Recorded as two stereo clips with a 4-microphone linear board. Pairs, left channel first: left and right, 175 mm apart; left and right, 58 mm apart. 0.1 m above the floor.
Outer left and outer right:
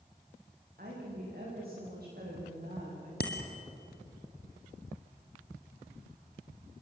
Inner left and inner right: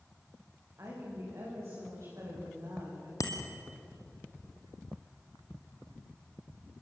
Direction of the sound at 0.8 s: 60° right (ahead or behind).